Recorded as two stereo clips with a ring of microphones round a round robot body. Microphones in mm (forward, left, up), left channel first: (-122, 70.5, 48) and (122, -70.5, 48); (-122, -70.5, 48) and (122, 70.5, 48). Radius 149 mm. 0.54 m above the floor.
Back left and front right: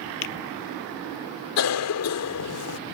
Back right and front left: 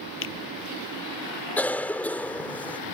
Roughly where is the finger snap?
Behind.